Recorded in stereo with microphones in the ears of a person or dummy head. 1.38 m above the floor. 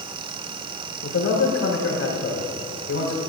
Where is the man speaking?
90° left, 4 m.